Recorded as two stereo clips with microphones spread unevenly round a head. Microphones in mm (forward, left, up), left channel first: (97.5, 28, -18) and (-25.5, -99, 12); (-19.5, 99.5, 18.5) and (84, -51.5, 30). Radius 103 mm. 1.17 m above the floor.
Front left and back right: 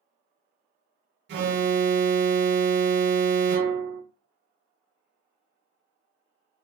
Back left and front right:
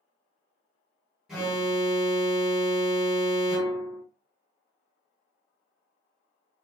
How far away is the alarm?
About 0.7 m.